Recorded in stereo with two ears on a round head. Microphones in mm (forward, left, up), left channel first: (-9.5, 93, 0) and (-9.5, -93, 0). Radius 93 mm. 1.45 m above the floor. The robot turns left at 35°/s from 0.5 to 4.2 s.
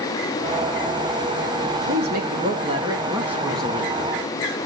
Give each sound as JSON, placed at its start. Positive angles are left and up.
{"t": 1.9, "sound": "a woman speaking", "azimuth_deg": -125, "distance_m": 2.5}